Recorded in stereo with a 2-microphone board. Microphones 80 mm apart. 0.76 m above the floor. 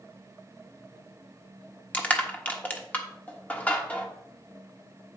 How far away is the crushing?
About 1.3 m.